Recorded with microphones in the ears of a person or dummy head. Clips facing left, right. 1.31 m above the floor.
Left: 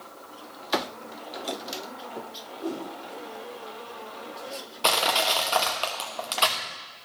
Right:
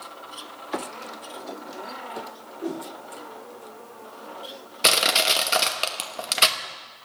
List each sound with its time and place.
2.6 s a whoosh: 20° right (ahead or behind), 1.6 m
4.8 s crushing: 25° right (ahead or behind), 0.9 m